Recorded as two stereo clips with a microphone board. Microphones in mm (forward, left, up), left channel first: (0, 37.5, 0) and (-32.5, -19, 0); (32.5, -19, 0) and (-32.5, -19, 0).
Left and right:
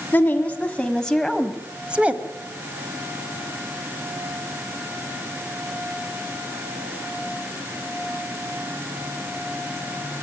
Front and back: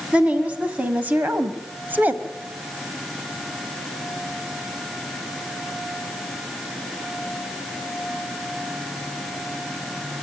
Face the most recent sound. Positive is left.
turn(degrees=-155)